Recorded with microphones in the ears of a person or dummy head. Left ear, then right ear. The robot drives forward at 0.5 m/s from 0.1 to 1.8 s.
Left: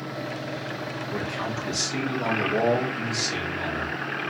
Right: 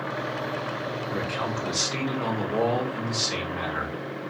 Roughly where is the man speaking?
Centre.